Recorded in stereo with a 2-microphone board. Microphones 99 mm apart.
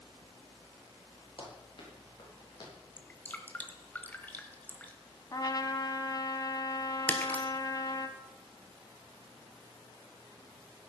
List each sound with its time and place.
1.4 s running footsteps: 60° left (ahead or behind), 6.5 m; by 2.7 s 45° left (ahead or behind), 7 m
3.0 s dripping: 15° left (ahead or behind), 1.4 m
5.3 s a trumpet: 40° left (ahead or behind), 1.1 m
7.1 s breaking glass: 15° left (ahead or behind), 1.7 m